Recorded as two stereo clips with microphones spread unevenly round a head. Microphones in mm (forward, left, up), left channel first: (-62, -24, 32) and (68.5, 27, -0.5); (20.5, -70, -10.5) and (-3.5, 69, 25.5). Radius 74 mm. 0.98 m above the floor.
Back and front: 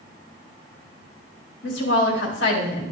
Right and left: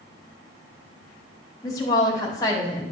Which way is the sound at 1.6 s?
145° right.